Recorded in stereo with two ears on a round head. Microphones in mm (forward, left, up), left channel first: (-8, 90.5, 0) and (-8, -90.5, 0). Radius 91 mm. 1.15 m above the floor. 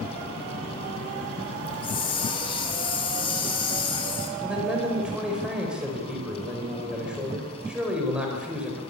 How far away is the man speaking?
About 4.5 m.